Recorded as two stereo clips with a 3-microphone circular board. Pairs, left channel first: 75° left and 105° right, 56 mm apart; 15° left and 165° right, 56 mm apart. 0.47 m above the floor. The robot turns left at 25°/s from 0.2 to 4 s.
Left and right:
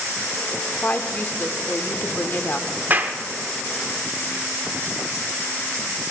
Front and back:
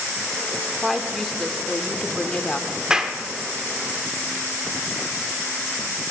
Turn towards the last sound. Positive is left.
turn(degrees=-125)